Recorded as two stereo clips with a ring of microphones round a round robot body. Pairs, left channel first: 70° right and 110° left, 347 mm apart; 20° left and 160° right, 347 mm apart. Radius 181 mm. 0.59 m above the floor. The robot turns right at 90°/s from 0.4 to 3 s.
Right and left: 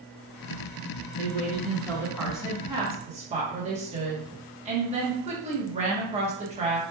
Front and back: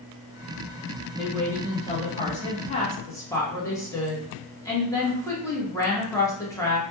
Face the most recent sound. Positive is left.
turn(degrees=85)